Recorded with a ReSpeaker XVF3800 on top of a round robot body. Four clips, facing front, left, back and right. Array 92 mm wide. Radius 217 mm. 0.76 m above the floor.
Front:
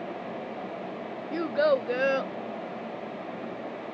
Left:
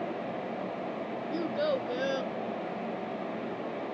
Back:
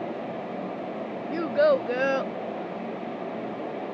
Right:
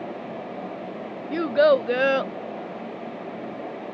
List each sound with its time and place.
1.3 s a child speaking: 100° right, 0.5 m